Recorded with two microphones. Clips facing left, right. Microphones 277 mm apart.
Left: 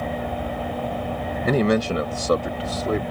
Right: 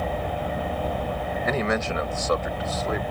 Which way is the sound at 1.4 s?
40° left (ahead or behind).